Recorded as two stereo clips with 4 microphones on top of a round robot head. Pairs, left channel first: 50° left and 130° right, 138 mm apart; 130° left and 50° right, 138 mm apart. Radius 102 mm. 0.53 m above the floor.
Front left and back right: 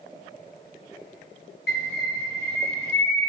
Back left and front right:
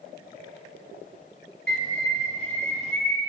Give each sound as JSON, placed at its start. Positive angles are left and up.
{"t": 1.7, "sound": "a bird", "azimuth_deg": 45, "distance_m": 0.6}